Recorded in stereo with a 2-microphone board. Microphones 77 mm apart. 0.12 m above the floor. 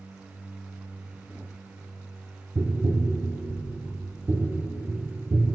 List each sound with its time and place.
2.5 s tapping: 30° right (ahead or behind), 1.3 m